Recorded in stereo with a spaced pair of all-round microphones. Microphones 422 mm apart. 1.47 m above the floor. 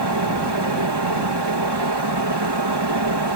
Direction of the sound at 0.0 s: 65° right (ahead or behind).